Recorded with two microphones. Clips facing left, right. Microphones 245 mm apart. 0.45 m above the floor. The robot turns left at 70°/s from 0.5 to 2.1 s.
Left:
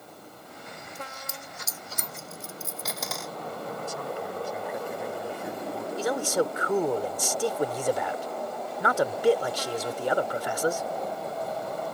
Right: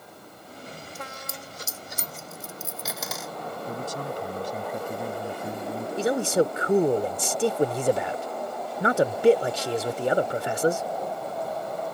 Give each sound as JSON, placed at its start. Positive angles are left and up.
{"t": 0.9, "sound": "a dropped coin", "side_deg": -80}
{"t": 3.7, "sound": "a man speaking", "side_deg": -40}
{"t": 6.0, "sound": "a man speaking", "side_deg": -25}